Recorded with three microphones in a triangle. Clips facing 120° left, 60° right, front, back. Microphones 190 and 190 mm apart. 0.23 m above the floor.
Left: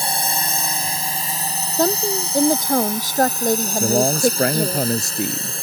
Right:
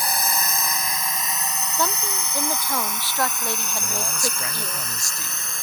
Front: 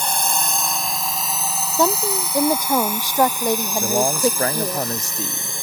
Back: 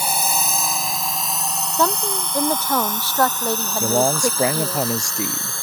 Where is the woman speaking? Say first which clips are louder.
Left 10 dB, front 2 dB; 75° left.